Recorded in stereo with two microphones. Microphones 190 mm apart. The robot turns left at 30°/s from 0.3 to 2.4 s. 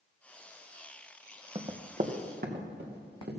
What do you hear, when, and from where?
1.6 s running footsteps: 30° right (ahead or behind), 1.1 m; by 3.4 s 60° right (ahead or behind), 3.5 m